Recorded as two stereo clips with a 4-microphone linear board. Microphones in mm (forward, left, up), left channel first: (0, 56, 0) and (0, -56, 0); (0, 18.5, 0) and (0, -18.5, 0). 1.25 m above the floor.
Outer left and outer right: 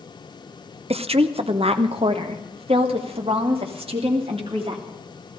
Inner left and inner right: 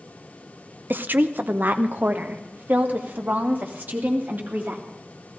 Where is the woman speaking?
60° right (ahead or behind), 0.7 m; by 4.8 s 55° right (ahead or behind), 3 m.